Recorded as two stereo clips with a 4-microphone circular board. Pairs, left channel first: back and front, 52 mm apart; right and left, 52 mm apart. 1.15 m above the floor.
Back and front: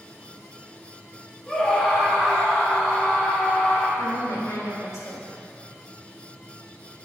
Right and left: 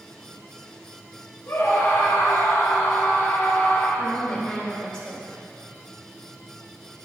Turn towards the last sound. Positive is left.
turn(degrees=-165)